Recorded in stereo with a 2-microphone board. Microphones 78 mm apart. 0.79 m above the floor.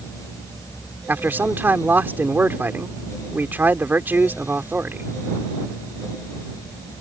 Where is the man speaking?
25° right (ahead or behind).